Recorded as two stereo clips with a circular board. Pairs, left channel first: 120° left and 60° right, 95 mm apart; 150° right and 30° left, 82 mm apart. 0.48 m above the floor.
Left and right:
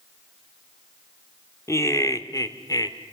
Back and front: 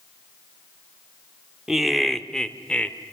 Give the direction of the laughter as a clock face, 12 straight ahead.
8 o'clock.